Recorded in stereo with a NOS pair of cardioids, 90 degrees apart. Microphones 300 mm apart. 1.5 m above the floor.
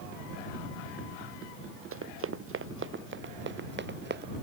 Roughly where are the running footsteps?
Ahead right.